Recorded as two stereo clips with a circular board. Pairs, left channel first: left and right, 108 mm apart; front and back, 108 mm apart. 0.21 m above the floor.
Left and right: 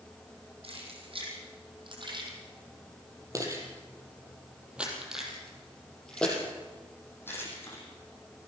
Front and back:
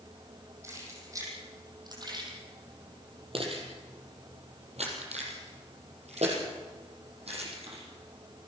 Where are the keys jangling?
115° right, 6.5 m; by 7.8 s 155° left, 7 m.